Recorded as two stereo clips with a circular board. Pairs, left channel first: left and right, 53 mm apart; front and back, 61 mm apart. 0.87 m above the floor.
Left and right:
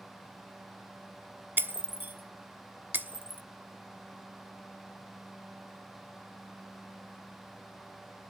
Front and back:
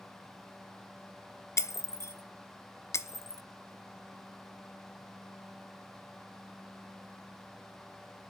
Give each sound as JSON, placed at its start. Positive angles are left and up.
{"t": 1.6, "sound": "breaking glass", "azimuth_deg": -35, "distance_m": 0.8}